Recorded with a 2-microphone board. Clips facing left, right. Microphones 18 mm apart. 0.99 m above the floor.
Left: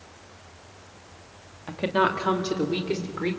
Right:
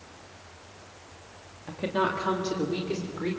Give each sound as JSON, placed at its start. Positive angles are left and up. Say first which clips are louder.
{"t": 1.7, "sound": "a woman speaking", "louder": "left 4 dB", "side_deg": 25, "distance_m": 2.0}